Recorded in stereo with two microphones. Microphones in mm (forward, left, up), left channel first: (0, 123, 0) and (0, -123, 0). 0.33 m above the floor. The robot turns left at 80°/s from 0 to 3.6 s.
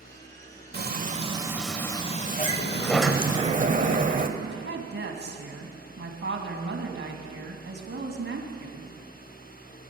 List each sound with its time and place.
0.7 s frying: 105° right, 1.0 m; by 3.4 s 45° left, 1.0 m
2.4 s a sliding door: 50° left, 1.0 m; by 4.3 s 50° right, 1.0 m
4.4 s a woman speaking: 50° right (ahead or behind), 2.5 m